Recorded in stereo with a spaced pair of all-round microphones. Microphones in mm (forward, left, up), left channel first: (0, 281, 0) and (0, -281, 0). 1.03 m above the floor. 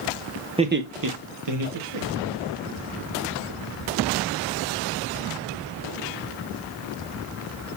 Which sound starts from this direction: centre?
Laughter, at 0.6 s.